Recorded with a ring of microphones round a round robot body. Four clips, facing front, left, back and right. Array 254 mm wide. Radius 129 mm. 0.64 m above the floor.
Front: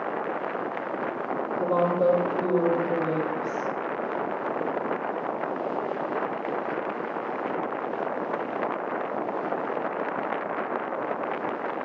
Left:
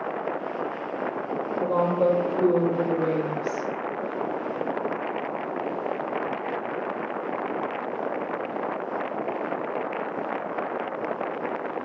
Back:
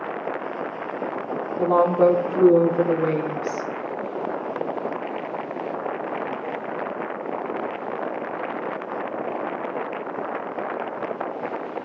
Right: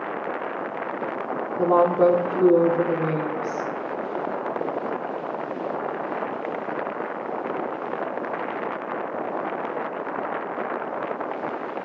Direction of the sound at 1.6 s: 125° right.